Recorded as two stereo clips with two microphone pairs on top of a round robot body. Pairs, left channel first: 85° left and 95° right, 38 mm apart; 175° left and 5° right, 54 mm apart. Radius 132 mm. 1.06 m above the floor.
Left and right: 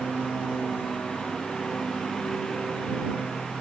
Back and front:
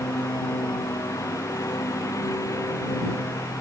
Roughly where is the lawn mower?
Behind.